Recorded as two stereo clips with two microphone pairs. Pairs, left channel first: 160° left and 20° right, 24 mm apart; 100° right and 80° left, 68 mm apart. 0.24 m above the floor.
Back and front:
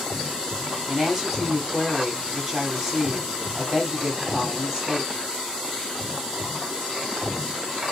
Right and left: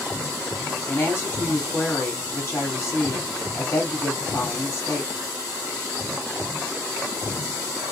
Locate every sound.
0.9 s a woman speaking: 95° right, 1.2 m